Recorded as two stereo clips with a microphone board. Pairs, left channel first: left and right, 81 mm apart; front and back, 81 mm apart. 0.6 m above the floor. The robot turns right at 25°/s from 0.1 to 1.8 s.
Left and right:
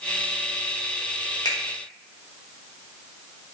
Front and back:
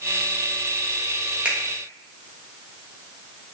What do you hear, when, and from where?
1.4 s a finger snap: 110° left, 0.6 m; by 1.6 s 115° left, 0.6 m